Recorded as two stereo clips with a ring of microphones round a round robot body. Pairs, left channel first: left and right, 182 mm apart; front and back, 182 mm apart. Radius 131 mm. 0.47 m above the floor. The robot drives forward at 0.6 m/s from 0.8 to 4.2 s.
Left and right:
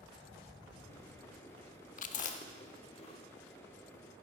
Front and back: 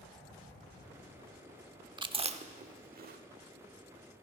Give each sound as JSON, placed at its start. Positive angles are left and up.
{"t": 2.0, "sound": "chewing", "azimuth_deg": 120, "distance_m": 0.8}